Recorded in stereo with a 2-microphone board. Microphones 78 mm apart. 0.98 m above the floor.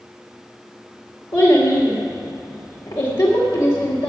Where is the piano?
I don't hear a piano.